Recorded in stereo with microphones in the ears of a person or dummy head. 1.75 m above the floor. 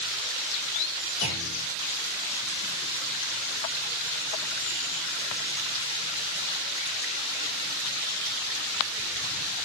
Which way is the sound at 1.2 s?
80° left.